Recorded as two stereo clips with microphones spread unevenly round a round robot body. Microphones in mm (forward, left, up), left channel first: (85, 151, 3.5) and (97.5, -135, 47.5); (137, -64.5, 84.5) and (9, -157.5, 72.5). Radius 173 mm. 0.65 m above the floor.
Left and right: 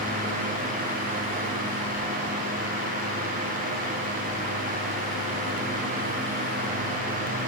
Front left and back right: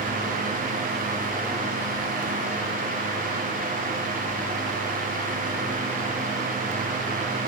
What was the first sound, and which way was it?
Only background noise.